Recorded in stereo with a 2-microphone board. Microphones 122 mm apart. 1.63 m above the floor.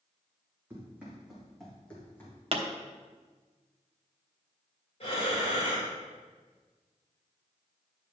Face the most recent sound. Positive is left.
turn(degrees=55)  # may be behind; listen again after turning